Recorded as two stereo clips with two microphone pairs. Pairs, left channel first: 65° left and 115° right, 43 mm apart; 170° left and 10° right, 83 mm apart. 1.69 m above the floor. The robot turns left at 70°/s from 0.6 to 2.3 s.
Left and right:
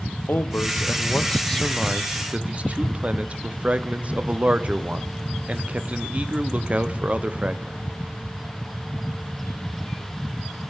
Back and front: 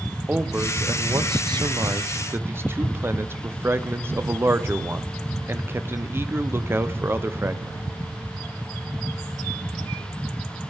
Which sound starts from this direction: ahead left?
A man speaking, at 0.3 s.